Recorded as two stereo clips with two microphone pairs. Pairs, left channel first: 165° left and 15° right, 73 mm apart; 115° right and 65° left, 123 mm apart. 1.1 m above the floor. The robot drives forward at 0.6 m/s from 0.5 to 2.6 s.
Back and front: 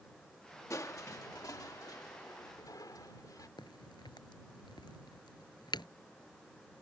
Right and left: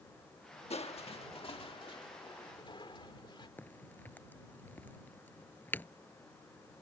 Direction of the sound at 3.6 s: 170° left.